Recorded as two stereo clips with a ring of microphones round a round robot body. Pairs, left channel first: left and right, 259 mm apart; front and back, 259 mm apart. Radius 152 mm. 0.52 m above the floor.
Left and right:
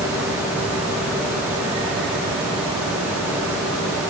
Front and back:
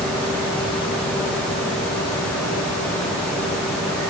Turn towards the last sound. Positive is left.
No sound to turn to.